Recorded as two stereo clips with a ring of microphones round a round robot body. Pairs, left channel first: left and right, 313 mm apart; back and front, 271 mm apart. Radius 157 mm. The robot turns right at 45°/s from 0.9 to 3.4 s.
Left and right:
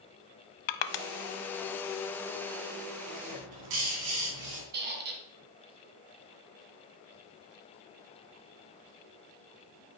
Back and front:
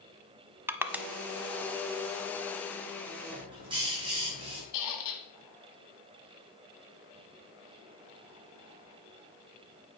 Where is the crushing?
85° left, 0.8 m; by 1.1 s 90° left, 0.8 m.